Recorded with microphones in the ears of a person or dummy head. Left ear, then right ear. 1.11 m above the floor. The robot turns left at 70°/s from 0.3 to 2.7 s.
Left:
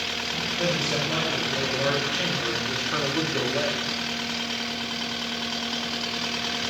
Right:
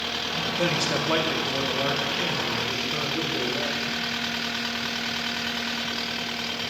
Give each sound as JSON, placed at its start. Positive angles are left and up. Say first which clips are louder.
{"t": 0.6, "sound": "a man speaking", "louder": "right 1 dB", "azimuth_deg": -85, "distance_m": 1.7}